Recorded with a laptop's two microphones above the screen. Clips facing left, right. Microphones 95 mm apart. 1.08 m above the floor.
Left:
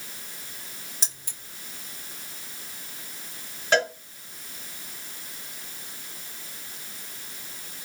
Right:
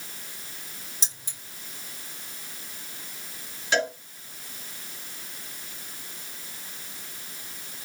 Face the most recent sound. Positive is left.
turn(degrees=45)  # may be behind; listen again after turning